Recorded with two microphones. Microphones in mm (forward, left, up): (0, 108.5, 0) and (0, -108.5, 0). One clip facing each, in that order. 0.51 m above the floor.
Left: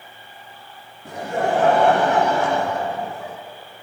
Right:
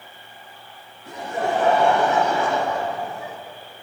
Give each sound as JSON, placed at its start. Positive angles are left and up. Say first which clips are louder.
{"t": 1.1, "sound": "laughter", "louder": "left 3 dB", "side_deg": 70, "distance_m": 2.5}